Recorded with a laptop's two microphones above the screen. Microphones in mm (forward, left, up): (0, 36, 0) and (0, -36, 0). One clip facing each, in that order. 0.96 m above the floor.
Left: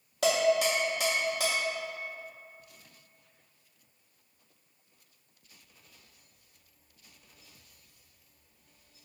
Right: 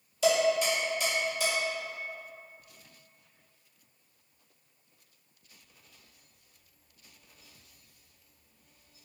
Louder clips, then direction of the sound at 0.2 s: Even; 65° left (ahead or behind).